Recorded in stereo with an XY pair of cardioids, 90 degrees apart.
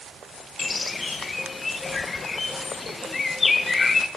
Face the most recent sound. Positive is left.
turn(degrees=35)